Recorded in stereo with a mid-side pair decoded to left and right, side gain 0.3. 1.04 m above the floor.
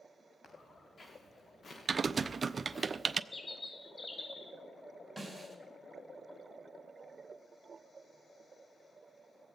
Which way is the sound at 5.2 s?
10° right.